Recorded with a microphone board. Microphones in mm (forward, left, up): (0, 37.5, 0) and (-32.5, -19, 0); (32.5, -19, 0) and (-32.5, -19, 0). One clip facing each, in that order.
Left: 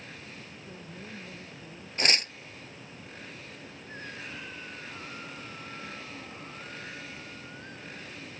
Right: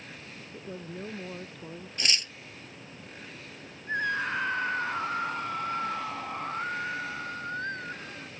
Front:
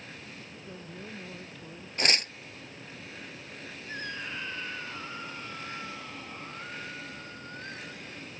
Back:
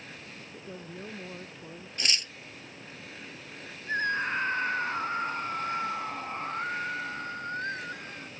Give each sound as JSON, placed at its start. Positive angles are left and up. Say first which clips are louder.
{"t": 0.5, "sound": "a woman speaking", "louder": "right 5 dB, back 4 dB", "azimuth_deg": -115}
{"t": 2.0, "sound": "tearing paper", "louder": "left 4 dB, front 5 dB", "azimuth_deg": 30}
{"t": 3.9, "sound": "a scream", "louder": "right 14 dB, back 10 dB", "azimuth_deg": -135}